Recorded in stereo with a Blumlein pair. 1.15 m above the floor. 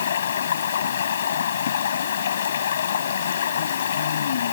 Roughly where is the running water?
Ahead left.